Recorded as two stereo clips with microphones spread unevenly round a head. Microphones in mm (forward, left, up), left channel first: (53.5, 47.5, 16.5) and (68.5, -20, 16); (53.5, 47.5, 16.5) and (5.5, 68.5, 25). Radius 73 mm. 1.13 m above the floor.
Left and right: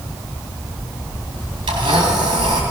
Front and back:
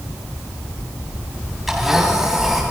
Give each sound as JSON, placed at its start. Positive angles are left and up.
{"t": 1.7, "sound": "a blender", "azimuth_deg": -115, "distance_m": 3.0}